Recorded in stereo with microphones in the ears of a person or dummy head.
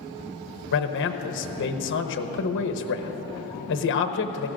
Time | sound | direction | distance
0.7 | a man speaking | 60° left (ahead or behind) | 0.9 m